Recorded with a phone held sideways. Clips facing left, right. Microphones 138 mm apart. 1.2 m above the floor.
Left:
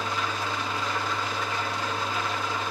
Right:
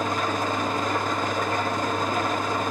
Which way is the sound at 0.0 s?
45° right (ahead or behind).